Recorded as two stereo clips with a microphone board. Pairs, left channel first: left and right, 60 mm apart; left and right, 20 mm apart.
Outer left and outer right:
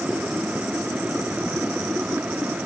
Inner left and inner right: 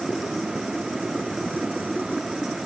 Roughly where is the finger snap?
I don't hear a finger snap.